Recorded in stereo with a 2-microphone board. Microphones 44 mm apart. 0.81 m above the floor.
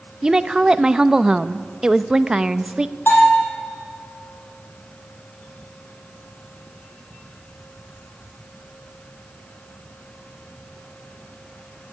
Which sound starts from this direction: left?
A bell, at 3.1 s.